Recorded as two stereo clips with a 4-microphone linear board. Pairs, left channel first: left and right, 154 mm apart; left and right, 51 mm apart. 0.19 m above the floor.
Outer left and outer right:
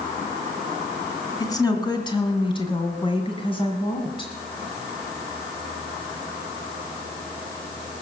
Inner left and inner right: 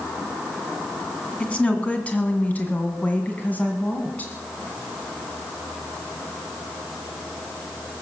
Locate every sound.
1.4 s a woman speaking: 20° left (ahead or behind), 2 m; by 4.3 s 30° left (ahead or behind), 2 m